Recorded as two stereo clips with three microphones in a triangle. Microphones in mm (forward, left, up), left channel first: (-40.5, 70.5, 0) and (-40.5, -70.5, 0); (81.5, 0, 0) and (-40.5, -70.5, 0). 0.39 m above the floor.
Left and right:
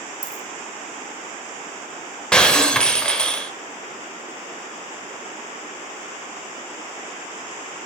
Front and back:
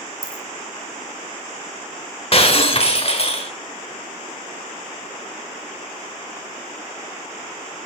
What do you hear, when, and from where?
0.2 s a dropped coin: 85° right, 1.2 m
2.3 s breaking glass: 10° left, 0.9 m